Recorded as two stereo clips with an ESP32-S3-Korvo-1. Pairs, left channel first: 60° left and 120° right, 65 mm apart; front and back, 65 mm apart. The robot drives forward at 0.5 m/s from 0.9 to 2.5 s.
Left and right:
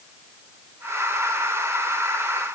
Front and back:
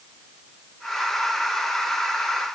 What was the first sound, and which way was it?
Only background noise.